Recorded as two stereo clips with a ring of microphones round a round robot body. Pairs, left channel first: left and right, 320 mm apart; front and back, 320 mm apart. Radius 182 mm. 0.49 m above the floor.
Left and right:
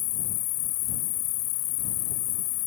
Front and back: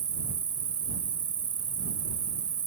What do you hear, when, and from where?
0.0 s an insect: 105° left